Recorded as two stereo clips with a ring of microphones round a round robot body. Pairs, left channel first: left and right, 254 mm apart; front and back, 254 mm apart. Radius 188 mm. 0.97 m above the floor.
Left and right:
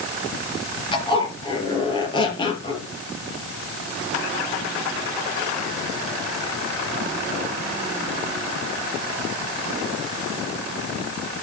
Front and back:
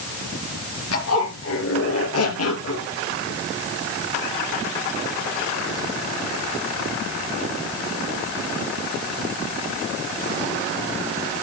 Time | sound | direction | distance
0.9 | a zipper | 20° left | 4 m